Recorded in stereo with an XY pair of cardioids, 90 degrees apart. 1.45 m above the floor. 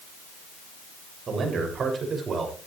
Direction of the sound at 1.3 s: 55° right.